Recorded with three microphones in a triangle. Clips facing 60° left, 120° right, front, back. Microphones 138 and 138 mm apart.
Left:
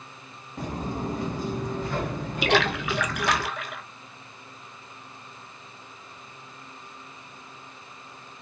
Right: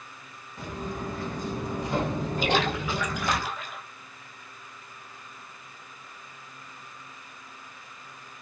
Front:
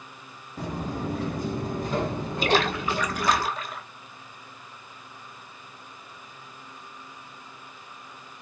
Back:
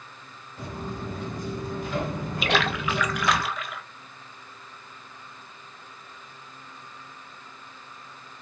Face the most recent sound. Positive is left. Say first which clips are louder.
# left 3 dB, front 2 dB
turn(degrees=55)